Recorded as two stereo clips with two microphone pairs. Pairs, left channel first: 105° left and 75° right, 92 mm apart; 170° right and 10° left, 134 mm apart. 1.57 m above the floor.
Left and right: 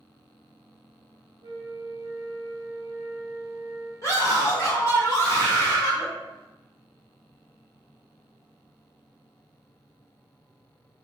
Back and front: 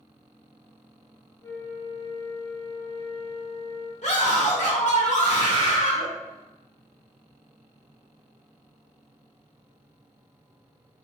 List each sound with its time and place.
1.4 s a flute: 105° right, 0.6 m
4.0 s a scream: 160° left, 1.1 m